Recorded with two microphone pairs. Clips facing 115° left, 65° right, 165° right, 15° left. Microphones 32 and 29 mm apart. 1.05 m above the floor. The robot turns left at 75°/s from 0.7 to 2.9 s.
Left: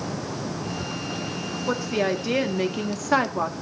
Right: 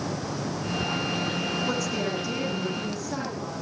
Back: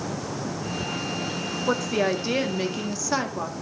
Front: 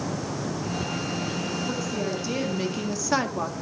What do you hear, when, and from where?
1.7 s a woman speaking: 175° right, 1.7 m; by 3.5 s 95° left, 1.7 m